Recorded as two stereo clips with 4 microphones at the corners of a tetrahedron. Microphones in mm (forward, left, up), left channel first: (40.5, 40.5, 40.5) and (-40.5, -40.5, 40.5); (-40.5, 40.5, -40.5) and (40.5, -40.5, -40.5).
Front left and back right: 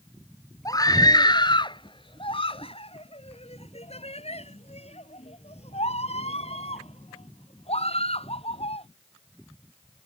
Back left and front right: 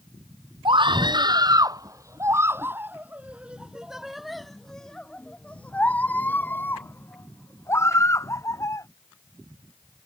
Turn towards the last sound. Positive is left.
turn(degrees=75)